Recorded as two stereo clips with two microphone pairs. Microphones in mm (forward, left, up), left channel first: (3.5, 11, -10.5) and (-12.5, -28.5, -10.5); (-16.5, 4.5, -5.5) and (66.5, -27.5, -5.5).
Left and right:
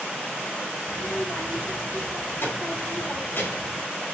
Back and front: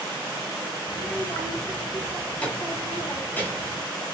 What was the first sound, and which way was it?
A child speaking, 75° left.